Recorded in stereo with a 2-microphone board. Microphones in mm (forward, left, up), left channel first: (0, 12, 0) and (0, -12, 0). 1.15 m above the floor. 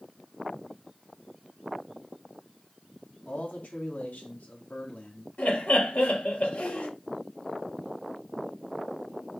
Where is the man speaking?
80° left, 2.5 m.